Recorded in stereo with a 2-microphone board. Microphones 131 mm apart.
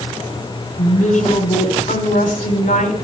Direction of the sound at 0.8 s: 80° left.